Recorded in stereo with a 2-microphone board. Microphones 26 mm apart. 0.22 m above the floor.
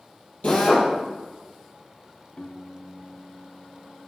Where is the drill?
50° left (ahead or behind), 3.5 m.